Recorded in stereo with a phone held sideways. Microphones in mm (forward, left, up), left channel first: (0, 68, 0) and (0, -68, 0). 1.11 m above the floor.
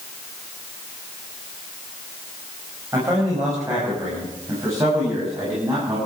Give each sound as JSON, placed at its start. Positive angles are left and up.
{"t": 2.9, "sound": "a man speaking", "side_deg": -25, "distance_m": 6.5}